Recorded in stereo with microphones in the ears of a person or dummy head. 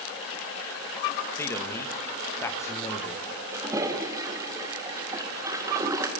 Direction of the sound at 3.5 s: 15° right (ahead or behind).